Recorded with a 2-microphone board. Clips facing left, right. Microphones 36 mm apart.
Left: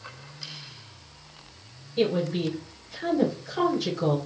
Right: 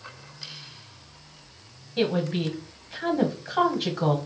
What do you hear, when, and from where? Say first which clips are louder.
2.0 s a woman speaking: even; 40° right (ahead or behind), 1.2 m